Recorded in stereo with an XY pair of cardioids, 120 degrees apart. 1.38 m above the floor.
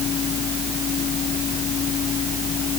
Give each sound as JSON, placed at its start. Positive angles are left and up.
{"t": 0.0, "sound": "a fan", "azimuth_deg": 50}